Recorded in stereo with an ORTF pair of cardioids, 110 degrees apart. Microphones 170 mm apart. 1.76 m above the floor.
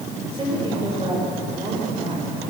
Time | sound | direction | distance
0.3 | a woman speaking | 30° right | 8.5 m